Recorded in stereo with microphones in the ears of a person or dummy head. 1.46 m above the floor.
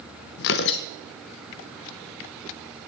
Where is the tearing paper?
60° left (ahead or behind), 0.7 m.